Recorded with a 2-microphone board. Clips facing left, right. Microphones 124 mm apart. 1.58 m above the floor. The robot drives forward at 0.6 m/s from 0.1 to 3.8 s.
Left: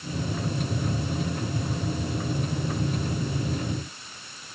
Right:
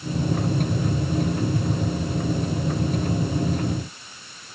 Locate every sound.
Only background noise.